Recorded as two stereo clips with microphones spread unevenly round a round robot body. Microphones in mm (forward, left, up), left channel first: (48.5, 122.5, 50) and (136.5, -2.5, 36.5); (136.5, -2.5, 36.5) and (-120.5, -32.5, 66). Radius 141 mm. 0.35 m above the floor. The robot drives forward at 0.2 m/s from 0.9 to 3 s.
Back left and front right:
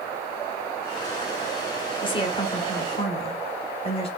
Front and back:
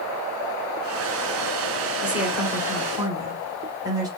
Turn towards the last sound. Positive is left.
turn(degrees=110)